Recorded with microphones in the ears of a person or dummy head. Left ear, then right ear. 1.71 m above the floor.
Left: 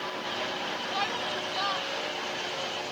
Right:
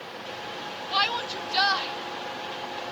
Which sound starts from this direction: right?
A shout, at 0.9 s.